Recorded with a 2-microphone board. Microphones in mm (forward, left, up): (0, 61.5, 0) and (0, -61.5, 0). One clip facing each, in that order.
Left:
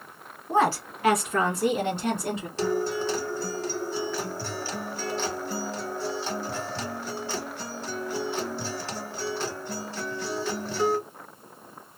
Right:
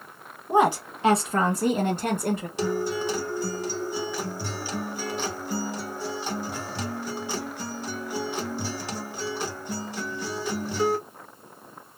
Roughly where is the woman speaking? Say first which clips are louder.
Right 2 dB; centre.